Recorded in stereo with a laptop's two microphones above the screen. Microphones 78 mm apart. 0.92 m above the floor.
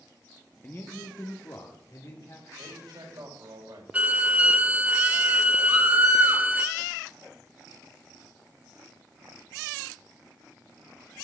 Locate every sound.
0.6 s a man speaking: 35° left (ahead or behind), 1.0 m; by 2.5 s 55° left (ahead or behind), 2.5 m
2.6 s a man speaking: 60° right (ahead or behind), 4 m
3.9 s a violin: 20° right (ahead or behind), 0.7 m
5.7 s a scream: 65° right (ahead or behind), 5 m